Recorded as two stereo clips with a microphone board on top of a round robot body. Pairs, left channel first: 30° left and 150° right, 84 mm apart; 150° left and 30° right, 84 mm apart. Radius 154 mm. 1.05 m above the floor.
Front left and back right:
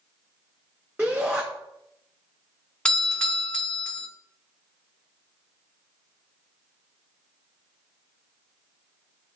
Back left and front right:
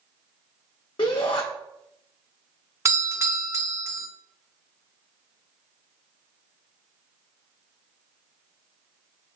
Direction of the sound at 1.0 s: 140° left.